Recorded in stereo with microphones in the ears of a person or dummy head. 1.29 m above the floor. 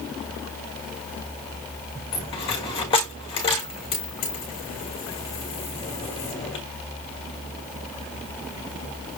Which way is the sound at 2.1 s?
30° left (ahead or behind).